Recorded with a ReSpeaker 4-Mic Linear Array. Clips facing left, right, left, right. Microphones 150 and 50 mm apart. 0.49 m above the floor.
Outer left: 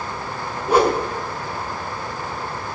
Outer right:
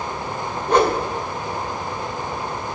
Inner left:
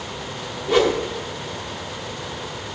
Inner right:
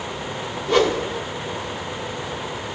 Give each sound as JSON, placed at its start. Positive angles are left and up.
{"t": 0.7, "sound": "a whoosh", "side_deg": 10, "distance_m": 0.9}